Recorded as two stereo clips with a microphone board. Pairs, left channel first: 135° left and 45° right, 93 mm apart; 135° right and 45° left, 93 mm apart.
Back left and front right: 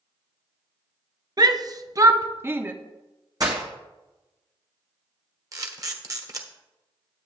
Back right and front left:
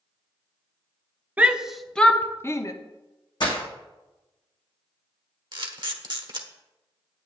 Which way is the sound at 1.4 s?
25° right.